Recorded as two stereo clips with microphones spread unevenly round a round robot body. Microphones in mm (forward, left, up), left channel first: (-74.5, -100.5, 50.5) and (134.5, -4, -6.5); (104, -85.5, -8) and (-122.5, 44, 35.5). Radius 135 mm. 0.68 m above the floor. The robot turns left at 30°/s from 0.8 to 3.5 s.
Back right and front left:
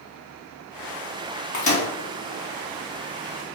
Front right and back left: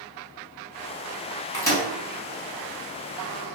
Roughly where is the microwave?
Right.